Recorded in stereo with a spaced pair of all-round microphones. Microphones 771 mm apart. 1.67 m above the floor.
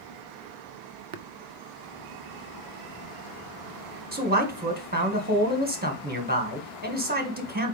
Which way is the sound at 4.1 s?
10° right (ahead or behind).